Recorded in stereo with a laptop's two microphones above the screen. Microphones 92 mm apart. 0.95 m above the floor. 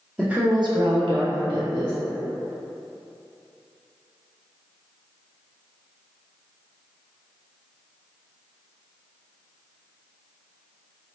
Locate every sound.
0.2 s a woman speaking: 5° right (ahead or behind), 0.6 m; by 1.9 s 65° right (ahead or behind), 1.5 m